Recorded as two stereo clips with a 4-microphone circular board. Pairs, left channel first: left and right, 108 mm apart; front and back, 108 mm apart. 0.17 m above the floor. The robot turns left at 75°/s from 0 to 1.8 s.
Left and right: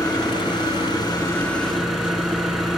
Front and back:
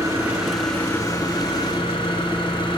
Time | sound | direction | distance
0.0 | an engine running | 130° left | 2.0 m